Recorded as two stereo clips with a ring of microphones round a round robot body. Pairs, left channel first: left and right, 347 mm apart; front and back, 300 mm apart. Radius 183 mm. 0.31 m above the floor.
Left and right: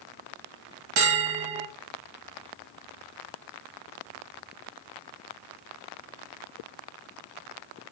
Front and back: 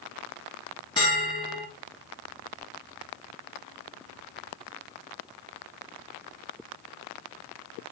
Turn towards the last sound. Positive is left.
turn(degrees=-75)